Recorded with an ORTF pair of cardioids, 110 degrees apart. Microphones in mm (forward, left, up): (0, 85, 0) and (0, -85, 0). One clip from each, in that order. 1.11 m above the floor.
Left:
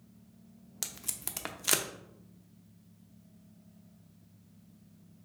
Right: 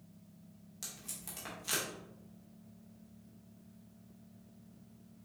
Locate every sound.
0.8 s tape being pulled: 55° left, 0.7 m